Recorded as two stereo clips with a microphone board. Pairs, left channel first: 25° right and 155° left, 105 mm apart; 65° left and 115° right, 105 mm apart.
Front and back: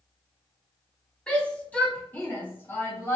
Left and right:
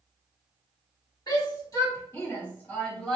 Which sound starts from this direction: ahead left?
A shout, at 1.3 s.